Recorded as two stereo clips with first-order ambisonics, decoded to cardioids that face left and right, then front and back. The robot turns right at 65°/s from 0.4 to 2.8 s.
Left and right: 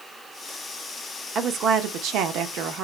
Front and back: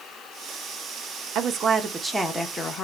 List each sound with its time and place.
1.4 s a woman speaking: 150° right, 0.6 m; by 2.9 s 55° right, 0.6 m